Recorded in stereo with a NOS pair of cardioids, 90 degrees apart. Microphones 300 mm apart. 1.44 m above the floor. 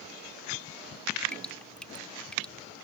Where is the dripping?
5° left.